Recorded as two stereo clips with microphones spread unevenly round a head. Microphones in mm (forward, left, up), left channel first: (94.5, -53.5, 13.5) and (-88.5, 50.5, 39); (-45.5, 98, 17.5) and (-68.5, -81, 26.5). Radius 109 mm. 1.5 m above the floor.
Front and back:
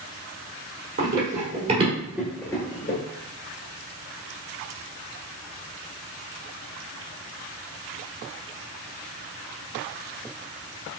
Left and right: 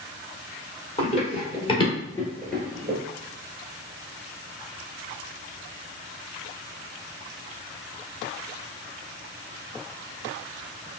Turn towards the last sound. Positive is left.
turn(degrees=-35)